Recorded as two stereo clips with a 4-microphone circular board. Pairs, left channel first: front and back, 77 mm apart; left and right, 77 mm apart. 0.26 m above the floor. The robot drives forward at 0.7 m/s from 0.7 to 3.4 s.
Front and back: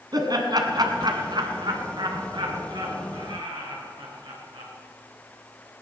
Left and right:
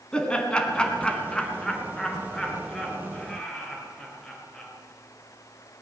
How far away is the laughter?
About 2.5 m.